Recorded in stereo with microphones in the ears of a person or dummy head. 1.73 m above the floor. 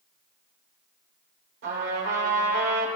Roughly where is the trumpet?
Right.